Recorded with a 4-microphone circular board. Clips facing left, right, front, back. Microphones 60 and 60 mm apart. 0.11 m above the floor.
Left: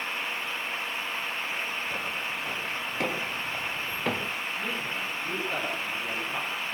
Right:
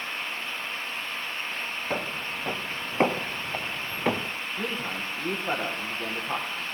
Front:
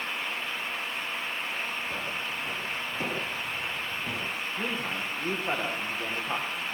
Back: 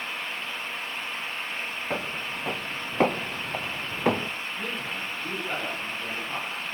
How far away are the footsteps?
About 3 m.